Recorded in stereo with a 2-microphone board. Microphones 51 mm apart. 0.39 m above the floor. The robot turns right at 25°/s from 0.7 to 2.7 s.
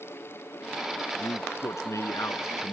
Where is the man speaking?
70° left; by 2.7 s 110° left.